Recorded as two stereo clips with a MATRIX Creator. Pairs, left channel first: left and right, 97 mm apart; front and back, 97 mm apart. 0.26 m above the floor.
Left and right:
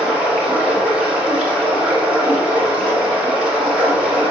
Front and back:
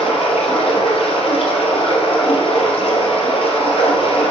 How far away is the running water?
About 3 m.